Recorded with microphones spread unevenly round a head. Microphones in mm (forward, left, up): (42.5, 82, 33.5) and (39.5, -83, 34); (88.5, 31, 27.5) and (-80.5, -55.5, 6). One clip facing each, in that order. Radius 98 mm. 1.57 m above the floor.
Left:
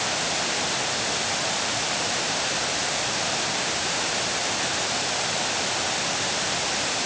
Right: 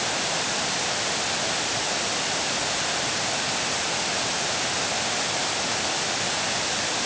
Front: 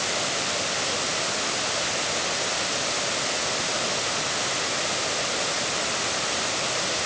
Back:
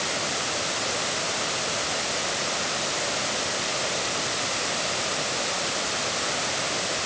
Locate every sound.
Only background noise.